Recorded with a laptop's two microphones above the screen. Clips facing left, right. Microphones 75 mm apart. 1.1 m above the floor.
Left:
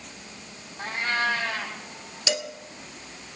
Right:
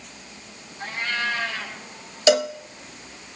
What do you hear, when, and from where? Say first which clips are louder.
0.8 s a cat meowing: left 1 dB; 45° left (ahead or behind), 4 m
2.3 s a cowbell: right 12 dB; 75° right (ahead or behind), 1.2 m